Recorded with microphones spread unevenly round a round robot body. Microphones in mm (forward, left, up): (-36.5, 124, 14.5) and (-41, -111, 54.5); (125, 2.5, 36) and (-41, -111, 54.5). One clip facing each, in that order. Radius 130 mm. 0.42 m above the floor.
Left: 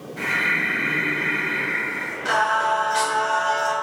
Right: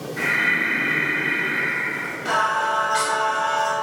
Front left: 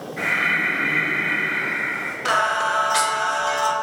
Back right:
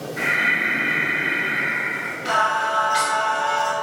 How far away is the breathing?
About 2.0 m.